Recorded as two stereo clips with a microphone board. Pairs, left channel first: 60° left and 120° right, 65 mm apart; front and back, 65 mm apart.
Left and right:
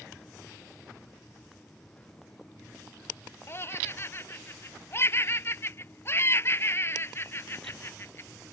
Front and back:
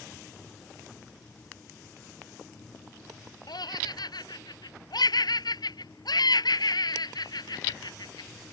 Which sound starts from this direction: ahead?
Laughter, at 3.5 s.